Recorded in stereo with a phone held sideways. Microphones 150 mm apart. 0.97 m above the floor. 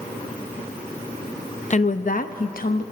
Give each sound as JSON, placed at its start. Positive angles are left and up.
{"t": 1.7, "sound": "a woman speaking", "side_deg": 50, "distance_m": 0.6}